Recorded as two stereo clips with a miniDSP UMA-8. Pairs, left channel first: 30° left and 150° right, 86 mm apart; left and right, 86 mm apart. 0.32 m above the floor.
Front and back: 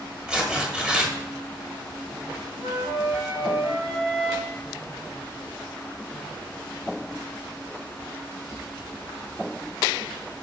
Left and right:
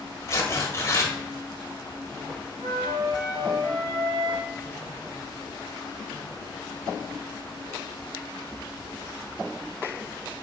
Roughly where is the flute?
Ahead right.